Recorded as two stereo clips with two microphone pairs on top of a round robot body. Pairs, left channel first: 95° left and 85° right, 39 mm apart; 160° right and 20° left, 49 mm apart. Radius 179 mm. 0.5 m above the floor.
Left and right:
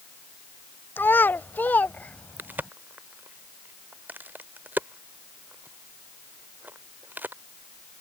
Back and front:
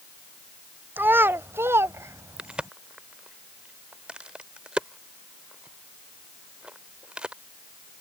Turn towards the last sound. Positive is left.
turn(degrees=-45)